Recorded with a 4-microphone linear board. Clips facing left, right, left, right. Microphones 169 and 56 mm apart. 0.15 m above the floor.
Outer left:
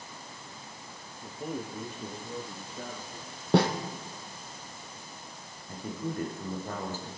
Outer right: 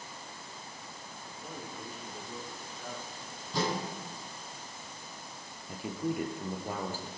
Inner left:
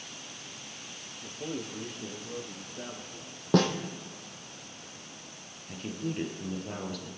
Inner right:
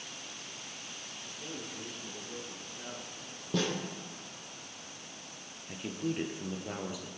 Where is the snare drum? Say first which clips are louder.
Outer left 9 dB, inner left 8 dB; 70° left (ahead or behind), 2 m.